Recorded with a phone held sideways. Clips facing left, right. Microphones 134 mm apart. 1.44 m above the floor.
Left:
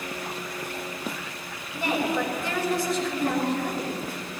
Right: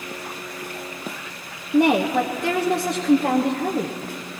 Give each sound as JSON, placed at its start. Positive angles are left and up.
{"t": 1.7, "sound": "a woman speaking", "side_deg": -65, "distance_m": 0.9}